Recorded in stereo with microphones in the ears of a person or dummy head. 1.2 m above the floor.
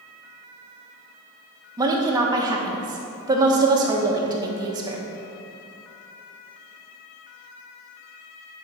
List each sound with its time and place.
1.8 s a woman speaking: 20° right (ahead or behind), 0.9 m